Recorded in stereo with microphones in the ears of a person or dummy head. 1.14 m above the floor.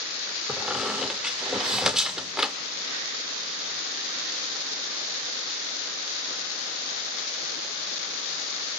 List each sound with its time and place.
0.5 s a squeak: 5° right (ahead or behind), 1.3 m